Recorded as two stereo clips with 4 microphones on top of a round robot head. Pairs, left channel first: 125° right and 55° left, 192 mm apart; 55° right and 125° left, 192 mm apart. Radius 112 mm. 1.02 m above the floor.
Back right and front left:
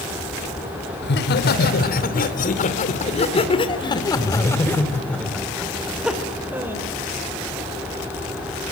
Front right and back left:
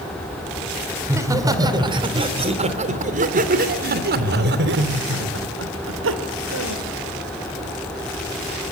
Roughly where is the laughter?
Behind.